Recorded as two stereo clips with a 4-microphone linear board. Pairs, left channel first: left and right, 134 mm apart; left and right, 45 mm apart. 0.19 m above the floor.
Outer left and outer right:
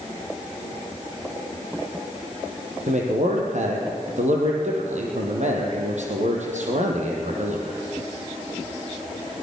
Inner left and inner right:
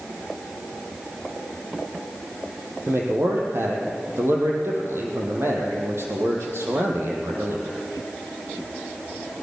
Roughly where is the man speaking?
Right.